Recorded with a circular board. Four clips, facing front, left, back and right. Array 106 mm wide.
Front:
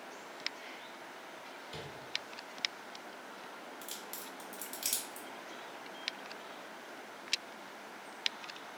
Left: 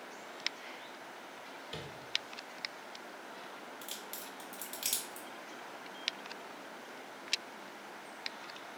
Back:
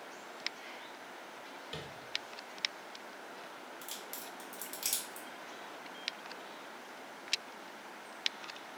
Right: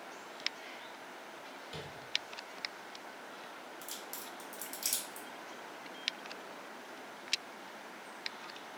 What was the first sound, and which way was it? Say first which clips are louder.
Tapping: left 1 dB, back 1 dB; 150° left.